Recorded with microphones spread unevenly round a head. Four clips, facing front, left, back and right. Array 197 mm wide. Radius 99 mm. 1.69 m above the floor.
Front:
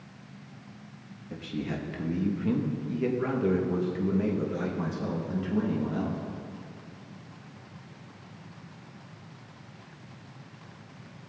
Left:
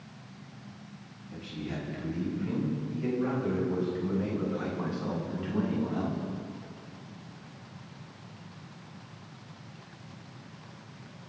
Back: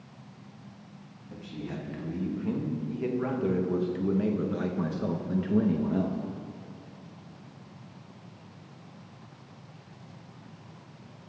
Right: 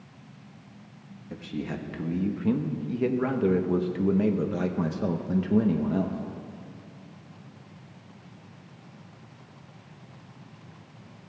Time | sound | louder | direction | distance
1.3 | a man speaking | right 4 dB, front 4 dB | 55° right | 2.5 m